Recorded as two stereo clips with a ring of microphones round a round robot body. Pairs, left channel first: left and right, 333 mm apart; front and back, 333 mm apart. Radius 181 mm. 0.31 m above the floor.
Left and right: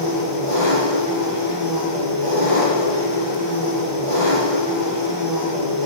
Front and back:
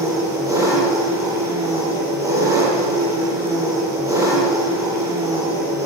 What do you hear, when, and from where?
0.0 s an engine running: 100° right, 9 m